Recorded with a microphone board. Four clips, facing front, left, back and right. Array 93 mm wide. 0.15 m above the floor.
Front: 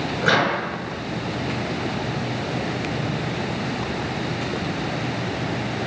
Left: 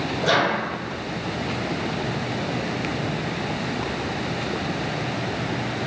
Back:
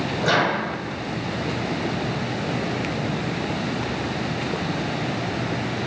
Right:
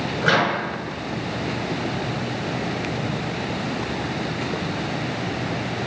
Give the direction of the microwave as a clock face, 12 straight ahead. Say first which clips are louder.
Right 1 dB, front 1 dB; 2 o'clock.